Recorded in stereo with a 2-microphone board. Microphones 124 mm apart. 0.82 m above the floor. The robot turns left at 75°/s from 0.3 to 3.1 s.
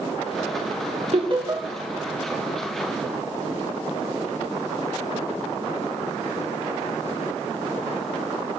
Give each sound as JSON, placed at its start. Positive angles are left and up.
{"t": 1.1, "sound": "laughter", "side_deg": -55, "distance_m": 2.5}